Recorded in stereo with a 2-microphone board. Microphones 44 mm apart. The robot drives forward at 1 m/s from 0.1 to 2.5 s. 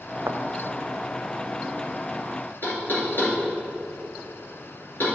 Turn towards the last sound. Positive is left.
turn(degrees=45)  # may be behind; listen again after turning